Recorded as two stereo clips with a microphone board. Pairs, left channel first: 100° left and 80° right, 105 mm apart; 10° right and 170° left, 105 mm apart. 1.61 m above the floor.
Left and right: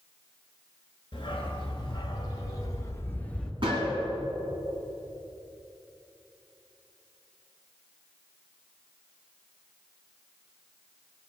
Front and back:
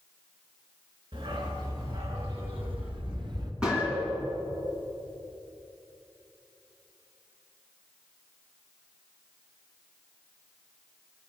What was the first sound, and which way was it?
A dog barking, 140° left.